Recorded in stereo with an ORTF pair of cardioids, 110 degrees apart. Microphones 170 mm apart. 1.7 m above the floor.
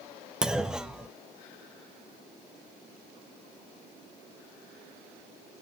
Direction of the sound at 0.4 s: 5° right.